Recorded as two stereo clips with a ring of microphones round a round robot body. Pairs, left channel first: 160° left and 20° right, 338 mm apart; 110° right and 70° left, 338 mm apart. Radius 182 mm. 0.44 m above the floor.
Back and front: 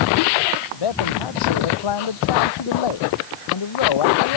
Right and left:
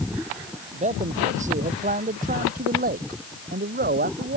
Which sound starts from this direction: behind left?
A man speaking, at 0.7 s.